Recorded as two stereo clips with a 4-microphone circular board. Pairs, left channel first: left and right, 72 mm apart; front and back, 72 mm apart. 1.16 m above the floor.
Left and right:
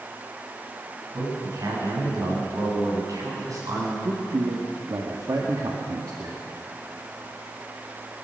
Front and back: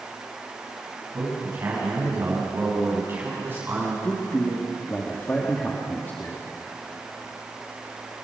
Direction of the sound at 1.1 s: 125° right.